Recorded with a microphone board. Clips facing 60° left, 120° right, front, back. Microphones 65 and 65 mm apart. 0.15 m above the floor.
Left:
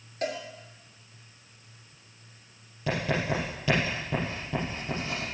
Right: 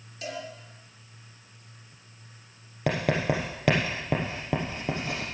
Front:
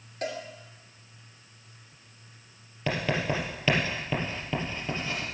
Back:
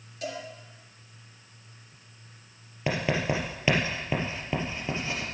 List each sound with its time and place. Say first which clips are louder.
0.2 s a cowbell: left 4 dB, front 2 dB; 30° left, 3 m
2.9 s writing: right 2 dB, back 1 dB; 105° right, 3.5 m